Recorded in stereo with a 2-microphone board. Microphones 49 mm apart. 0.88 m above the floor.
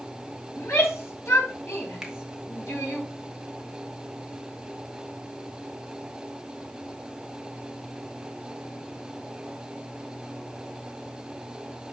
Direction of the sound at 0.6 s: 70° left (ahead or behind).